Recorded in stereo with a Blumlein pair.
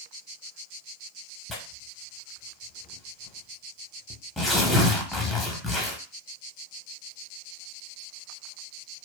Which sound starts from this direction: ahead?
Tearing paper, at 1.5 s.